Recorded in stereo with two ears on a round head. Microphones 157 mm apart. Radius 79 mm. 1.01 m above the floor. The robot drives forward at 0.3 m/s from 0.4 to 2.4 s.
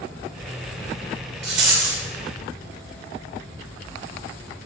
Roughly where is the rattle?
Right.